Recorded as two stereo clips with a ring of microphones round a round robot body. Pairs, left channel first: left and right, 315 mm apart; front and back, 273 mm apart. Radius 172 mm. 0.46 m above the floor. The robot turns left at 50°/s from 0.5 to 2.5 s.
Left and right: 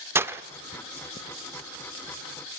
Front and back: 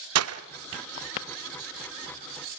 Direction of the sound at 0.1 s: 170° right.